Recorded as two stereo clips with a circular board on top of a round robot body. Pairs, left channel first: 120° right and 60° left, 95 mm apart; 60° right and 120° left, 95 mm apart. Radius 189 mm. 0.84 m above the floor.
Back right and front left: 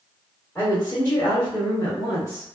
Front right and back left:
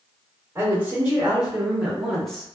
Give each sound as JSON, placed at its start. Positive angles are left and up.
{"t": 0.6, "sound": "a woman speaking", "azimuth_deg": 180, "distance_m": 1.7}